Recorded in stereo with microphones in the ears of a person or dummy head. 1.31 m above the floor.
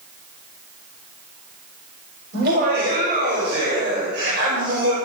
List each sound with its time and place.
2.3 s laughter: 55° right (ahead or behind), 7.5 m; by 5.0 s 65° right (ahead or behind), 6 m